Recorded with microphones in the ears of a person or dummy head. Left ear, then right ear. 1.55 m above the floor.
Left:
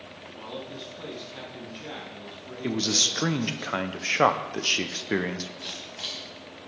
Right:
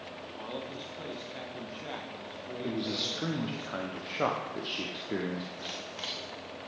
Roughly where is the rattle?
No rattle in this recording.